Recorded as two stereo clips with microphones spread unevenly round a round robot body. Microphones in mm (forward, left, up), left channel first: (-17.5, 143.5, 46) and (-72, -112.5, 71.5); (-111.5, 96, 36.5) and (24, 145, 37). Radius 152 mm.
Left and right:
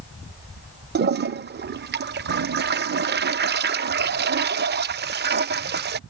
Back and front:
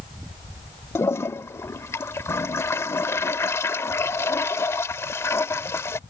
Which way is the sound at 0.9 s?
100° right.